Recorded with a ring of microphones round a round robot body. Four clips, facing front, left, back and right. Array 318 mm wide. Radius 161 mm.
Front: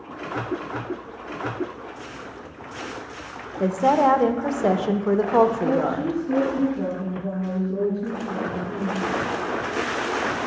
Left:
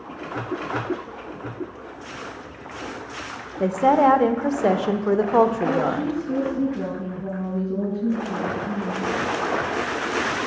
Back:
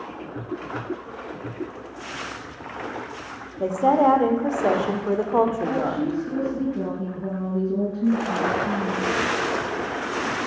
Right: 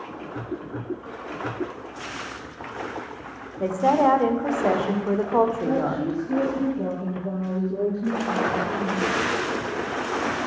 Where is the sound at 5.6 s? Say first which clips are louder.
Left 2 dB, front 2 dB; 155° left, 4.5 m.